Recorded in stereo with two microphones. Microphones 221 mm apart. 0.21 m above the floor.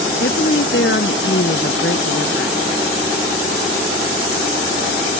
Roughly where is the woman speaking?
Left.